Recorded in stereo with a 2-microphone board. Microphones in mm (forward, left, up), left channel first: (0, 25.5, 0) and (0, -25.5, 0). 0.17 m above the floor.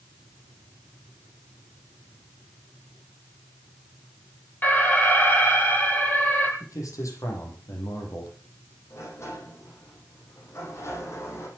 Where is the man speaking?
75° left (ahead or behind), 7 m.